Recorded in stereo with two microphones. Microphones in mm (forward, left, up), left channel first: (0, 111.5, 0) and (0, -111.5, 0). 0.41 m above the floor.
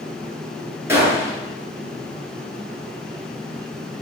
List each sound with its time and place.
0.9 s a gunshot: 10° right (ahead or behind), 3 m